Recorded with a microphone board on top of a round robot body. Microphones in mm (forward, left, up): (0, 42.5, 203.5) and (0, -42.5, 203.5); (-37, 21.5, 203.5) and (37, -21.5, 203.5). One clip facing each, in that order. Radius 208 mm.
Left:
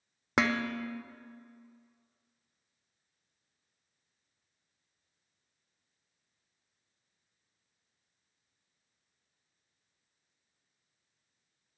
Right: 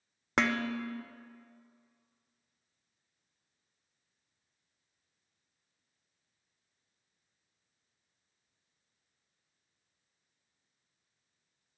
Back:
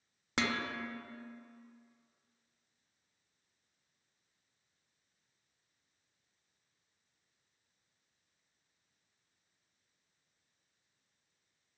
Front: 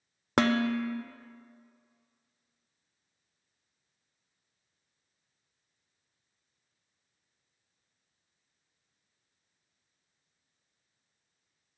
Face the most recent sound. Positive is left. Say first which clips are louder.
# left 1 dB, front 10 dB
turn(degrees=5)